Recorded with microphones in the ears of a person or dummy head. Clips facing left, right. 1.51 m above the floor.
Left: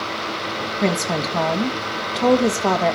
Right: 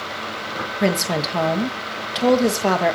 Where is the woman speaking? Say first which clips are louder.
Right 1 dB; 10° right (ahead or behind), 1.4 m.